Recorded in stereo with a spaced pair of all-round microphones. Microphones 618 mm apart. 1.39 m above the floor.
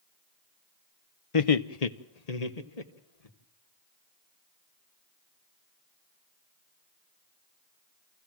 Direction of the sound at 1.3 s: 55° left (ahead or behind).